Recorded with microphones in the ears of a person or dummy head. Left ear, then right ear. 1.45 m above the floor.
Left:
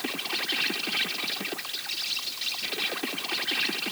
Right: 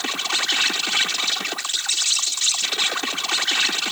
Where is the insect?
45° right (ahead or behind).